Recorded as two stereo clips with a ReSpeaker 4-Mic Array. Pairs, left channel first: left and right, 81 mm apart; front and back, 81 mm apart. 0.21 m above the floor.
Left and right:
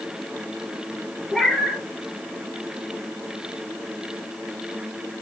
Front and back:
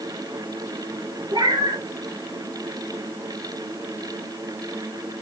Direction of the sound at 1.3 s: 175° left.